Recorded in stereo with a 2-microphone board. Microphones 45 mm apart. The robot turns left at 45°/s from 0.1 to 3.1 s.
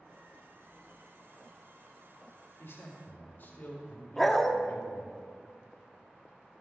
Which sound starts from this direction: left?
A man speaking, at 2.6 s.